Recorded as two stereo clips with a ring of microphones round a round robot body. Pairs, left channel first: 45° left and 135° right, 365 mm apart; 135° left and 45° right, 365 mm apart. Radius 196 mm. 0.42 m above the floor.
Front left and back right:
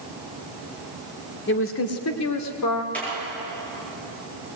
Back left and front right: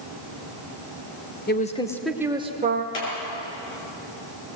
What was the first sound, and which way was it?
A woman speaking, 85° left.